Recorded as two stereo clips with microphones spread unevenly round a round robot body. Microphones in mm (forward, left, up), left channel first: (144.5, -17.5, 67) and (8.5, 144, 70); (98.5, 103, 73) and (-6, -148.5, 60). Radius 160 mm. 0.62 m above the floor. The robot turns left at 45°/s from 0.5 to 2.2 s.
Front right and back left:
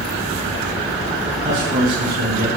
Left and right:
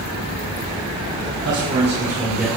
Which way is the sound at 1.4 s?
165° right.